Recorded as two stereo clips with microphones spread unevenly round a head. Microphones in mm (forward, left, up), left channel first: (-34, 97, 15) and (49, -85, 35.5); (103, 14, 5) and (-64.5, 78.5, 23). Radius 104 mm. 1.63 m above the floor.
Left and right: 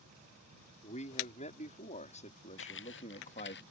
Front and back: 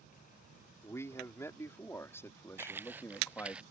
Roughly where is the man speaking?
Ahead left.